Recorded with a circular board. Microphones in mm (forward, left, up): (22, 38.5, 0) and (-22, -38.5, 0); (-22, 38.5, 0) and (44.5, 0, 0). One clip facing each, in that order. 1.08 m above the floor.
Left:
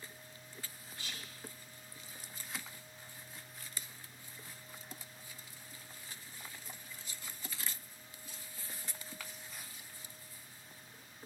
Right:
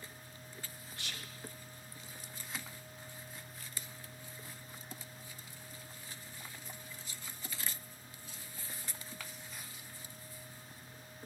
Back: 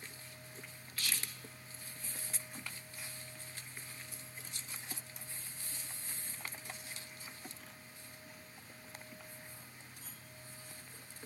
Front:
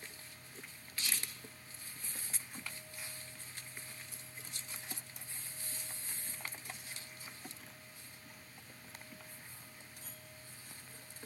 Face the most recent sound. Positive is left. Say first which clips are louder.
# right 1 dB, even
turn(degrees=-100)